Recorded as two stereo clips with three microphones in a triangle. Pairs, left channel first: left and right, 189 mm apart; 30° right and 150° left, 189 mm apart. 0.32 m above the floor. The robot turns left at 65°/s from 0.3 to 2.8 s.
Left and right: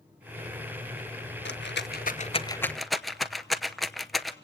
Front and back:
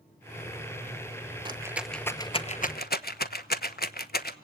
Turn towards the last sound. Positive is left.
turn(degrees=0)